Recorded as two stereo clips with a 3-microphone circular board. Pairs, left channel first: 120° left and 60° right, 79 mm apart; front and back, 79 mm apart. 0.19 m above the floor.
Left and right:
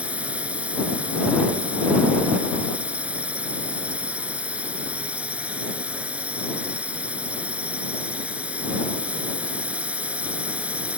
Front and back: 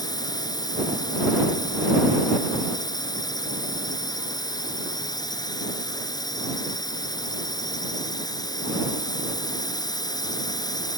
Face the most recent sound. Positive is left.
turn(degrees=10)